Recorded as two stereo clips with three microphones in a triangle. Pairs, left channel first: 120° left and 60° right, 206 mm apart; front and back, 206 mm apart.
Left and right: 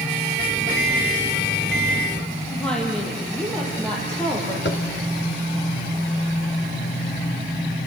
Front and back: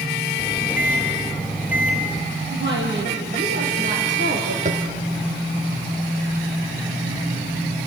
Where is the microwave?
95° right, 4 m.